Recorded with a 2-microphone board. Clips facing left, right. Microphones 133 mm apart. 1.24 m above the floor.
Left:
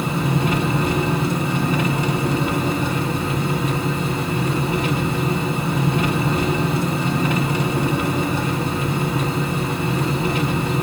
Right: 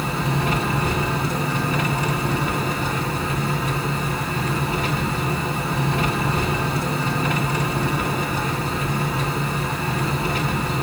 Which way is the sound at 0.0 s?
25° left (ahead or behind).